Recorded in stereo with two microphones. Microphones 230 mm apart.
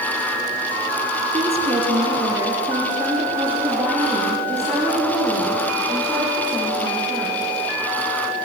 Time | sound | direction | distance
1.3 | a woman speaking | 30° right (ahead or behind) | 4.5 m